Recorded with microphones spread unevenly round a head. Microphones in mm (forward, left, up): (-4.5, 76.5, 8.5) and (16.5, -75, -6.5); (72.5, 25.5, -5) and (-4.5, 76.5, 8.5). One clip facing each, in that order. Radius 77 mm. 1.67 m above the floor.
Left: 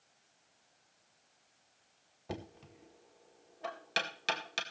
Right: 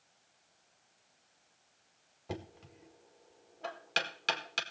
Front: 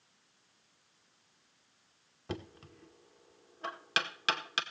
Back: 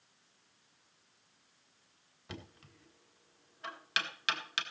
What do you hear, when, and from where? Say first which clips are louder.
2.3 s knocking: right 1 dB, front 8 dB; 15° left, 1.9 m